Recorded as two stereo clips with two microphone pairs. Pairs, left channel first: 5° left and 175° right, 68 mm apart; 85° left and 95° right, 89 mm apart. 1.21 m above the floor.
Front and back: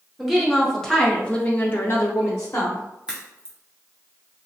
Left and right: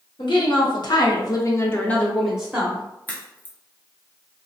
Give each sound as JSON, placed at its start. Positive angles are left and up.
{"t": 0.2, "sound": "a woman speaking", "azimuth_deg": 95, "distance_m": 1.0}
{"t": 3.1, "sound": "a crack", "azimuth_deg": 125, "distance_m": 0.6}